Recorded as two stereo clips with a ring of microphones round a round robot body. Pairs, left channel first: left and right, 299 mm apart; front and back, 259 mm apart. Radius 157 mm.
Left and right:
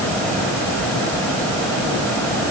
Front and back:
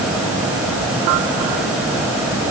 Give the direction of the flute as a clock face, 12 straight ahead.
No flute in this recording.